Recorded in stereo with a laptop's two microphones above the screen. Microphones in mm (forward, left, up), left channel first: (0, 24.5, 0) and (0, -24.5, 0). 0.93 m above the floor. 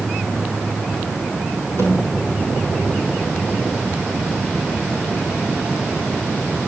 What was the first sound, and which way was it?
A snare drum, 50° left (ahead or behind).